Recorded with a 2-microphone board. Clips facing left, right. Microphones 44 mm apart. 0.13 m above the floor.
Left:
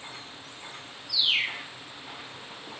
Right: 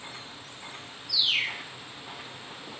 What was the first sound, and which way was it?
A bird, 15° left (ahead or behind).